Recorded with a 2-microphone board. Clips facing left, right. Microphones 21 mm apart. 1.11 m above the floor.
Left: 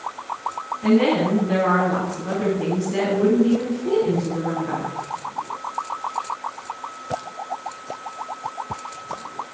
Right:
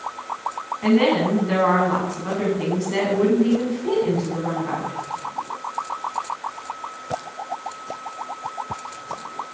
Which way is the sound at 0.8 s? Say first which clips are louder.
Even; 50° right (ahead or behind).